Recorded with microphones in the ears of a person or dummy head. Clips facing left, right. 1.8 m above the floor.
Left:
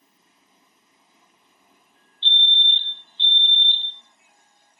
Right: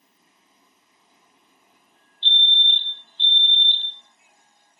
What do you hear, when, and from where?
2.2 s a fire alarm: 25° left (ahead or behind), 7 m